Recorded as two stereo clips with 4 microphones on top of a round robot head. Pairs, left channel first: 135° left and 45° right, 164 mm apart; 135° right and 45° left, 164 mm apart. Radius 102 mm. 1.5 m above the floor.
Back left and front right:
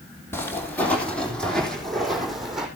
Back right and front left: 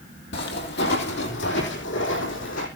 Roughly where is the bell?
I don't hear a bell.